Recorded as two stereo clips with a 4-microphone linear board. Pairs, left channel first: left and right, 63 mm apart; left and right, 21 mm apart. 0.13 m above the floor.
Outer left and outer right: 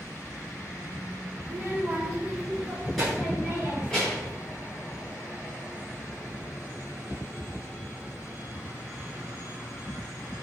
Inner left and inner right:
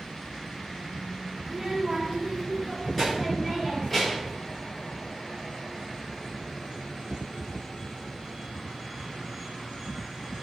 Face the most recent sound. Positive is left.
turn(degrees=20)  # may be behind; listen again after turning